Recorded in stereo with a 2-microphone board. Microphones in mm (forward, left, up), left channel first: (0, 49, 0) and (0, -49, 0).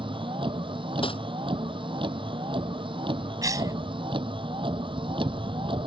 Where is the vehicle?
60° right (ahead or behind).